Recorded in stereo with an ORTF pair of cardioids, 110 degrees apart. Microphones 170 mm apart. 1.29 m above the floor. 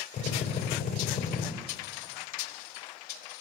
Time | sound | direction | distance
0.1 | a drill | 40° left | 6.5 m